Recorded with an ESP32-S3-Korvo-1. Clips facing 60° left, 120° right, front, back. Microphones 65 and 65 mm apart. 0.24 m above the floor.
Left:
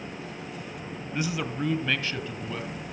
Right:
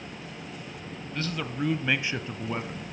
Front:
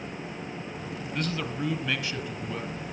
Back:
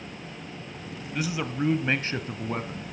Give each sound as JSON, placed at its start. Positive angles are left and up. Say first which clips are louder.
{"t": 1.1, "sound": "a man speaking", "louder": "left 2 dB, back 2 dB", "azimuth_deg": 105, "distance_m": 1.0}